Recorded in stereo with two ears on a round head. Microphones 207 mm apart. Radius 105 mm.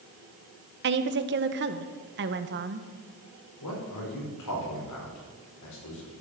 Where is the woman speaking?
50° right (ahead or behind), 1.0 m.